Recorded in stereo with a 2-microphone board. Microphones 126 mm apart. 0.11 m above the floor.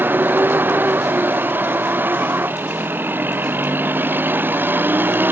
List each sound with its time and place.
0.0 s a vehicle: 15° right (ahead or behind)